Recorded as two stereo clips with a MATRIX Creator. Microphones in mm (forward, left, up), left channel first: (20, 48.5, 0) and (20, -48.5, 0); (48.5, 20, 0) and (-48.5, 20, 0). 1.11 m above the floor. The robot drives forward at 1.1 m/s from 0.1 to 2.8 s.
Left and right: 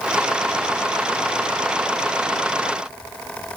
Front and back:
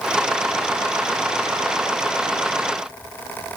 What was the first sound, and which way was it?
Only background noise.